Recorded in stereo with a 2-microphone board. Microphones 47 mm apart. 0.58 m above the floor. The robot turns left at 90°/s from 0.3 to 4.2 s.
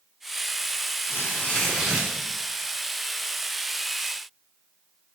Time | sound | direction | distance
1.1 | tearing paper | 60° left | 6 m